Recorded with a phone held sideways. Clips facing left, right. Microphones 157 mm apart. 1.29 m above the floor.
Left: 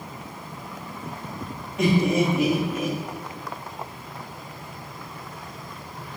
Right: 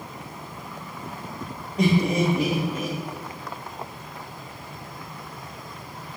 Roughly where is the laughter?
Right.